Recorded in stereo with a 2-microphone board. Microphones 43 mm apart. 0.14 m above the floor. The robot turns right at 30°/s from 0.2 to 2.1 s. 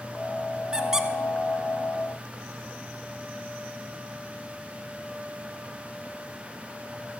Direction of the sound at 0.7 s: 20° right (ahead or behind).